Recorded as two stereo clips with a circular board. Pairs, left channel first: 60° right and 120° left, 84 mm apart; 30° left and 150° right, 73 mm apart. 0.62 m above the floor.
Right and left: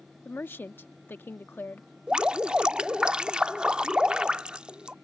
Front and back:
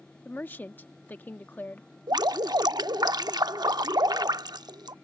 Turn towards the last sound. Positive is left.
turn(degrees=-160)